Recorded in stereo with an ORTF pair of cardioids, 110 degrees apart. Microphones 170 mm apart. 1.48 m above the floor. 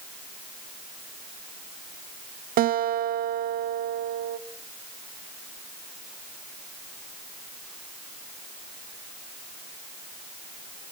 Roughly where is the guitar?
Ahead right.